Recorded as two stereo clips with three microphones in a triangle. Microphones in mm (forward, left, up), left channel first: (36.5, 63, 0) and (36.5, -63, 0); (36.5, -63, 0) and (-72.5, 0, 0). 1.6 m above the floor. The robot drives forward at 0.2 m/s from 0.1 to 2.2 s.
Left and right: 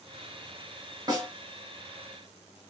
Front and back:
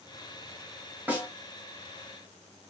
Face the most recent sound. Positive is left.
turn(degrees=-145)